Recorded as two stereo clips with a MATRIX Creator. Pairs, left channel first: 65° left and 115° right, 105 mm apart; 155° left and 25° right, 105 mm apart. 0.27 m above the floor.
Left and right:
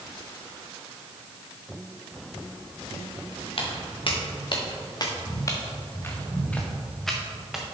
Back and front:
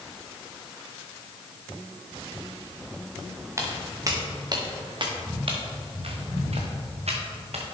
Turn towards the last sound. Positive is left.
turn(degrees=-25)